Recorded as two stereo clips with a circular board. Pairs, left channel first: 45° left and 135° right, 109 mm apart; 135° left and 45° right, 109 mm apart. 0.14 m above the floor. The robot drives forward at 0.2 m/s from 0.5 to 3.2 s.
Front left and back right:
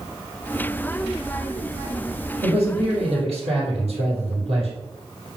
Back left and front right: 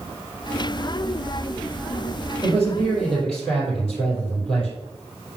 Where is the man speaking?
140° right, 4 m.